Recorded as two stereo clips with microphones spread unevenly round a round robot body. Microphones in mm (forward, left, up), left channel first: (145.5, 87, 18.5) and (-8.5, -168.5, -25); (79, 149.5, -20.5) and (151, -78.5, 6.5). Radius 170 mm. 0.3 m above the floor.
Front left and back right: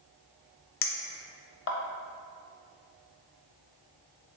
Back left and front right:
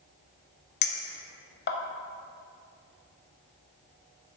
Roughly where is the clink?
Left.